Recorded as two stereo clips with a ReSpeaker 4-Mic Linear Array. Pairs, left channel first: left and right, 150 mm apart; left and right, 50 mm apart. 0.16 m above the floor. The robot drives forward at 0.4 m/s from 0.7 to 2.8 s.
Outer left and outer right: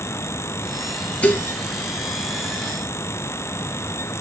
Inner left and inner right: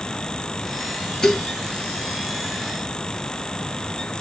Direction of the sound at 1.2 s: 10° left (ahead or behind).